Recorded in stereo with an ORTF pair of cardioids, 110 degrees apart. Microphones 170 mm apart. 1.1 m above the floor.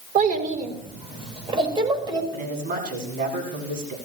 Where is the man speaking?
55° right, 8 m.